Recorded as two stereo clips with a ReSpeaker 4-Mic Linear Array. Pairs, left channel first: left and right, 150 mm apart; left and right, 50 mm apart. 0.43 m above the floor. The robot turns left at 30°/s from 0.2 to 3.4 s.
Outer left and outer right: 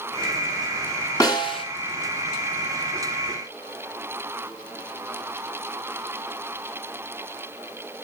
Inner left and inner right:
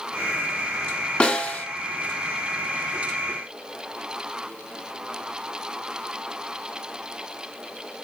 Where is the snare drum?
20° left (ahead or behind), 2.5 m; by 1.6 s 35° left (ahead or behind), 2.5 m.